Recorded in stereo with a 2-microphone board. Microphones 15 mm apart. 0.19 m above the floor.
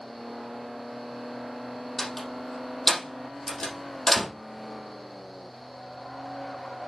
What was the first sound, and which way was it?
A door slam, 25° left (ahead or behind).